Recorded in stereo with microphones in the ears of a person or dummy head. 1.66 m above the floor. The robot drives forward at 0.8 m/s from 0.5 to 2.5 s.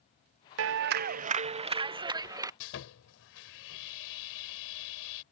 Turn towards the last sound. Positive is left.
turn(degrees=65)  # may be behind; listen again after turning